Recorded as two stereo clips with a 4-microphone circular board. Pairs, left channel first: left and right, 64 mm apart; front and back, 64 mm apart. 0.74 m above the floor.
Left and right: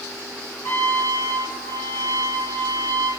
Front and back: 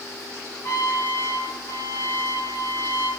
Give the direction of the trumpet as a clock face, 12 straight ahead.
10 o'clock.